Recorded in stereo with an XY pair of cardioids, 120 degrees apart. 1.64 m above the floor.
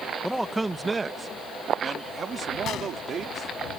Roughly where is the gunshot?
Ahead left.